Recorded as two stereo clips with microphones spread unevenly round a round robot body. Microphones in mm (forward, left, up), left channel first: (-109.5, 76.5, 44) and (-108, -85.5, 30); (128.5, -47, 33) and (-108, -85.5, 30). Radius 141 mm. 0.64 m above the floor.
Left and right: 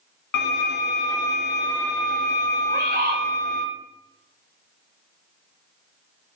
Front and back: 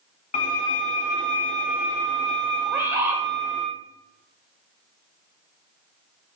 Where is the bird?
90° right, 2.5 m.